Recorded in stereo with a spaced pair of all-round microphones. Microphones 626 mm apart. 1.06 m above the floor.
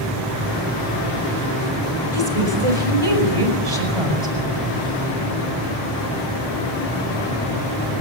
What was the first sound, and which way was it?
A woman speaking, 60° right (ahead or behind).